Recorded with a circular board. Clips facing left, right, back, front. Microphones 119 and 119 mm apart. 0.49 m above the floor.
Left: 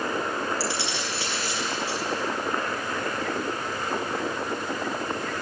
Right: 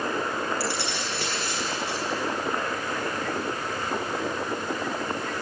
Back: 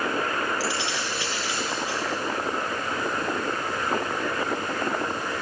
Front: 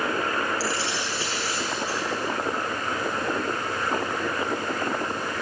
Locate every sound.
0.6 s keys jangling: 55° right, 9.5 m